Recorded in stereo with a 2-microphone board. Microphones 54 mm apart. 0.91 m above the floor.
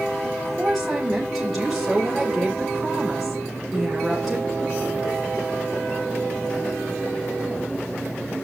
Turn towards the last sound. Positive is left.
turn(degrees=5)  # may be behind; listen again after turning